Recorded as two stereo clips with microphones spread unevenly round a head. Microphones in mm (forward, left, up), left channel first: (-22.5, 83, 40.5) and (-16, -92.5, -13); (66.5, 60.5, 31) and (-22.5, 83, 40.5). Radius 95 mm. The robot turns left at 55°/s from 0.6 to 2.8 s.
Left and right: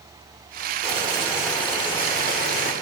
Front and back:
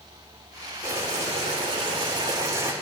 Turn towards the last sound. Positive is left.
turn(degrees=105)